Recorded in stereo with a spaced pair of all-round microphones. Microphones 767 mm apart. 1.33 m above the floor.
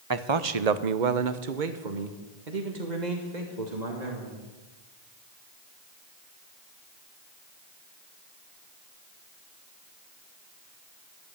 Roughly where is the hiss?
I don't hear a hiss.